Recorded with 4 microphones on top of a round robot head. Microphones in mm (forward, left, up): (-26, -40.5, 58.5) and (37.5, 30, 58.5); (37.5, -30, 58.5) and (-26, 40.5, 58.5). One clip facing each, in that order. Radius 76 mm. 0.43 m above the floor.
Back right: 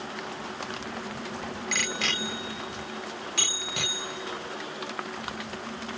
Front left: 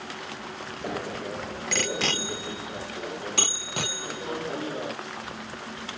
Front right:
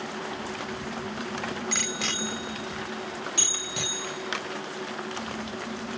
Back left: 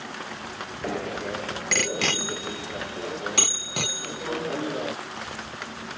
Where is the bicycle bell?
100° left.